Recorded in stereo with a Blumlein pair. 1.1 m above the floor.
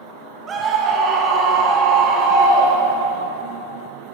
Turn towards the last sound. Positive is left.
turn(degrees=-35)